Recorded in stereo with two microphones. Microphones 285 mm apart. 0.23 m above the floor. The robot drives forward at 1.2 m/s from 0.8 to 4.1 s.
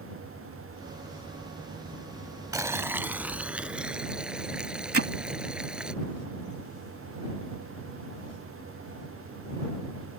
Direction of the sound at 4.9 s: 50° right (ahead or behind).